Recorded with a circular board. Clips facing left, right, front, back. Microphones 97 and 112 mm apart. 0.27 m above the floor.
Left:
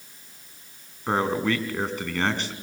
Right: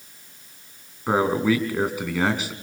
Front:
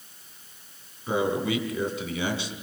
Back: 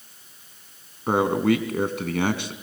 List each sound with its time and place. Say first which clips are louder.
1.1 s a man speaking: right 4 dB, back 5 dB; 170° right, 2.5 m